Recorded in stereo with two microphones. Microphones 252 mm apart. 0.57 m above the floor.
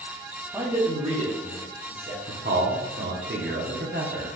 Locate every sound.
0.5 s a man speaking: 15° right (ahead or behind), 1.1 m; by 2.2 s 45° right (ahead or behind), 1.1 m
2.3 s a man speaking: 45° right (ahead or behind), 1.0 m